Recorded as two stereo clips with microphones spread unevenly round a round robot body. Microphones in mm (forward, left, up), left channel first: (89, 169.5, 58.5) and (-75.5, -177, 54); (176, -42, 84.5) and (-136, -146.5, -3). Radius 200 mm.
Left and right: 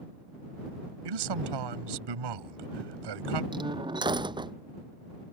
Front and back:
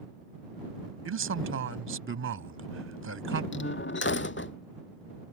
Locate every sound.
1.1 s a man speaking: 120° right
3.5 s a door slam: 35° right